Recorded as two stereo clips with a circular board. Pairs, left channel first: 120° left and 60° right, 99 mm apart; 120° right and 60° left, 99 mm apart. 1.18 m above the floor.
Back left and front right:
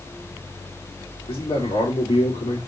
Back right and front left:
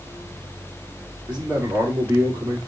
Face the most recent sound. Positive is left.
turn(degrees=135)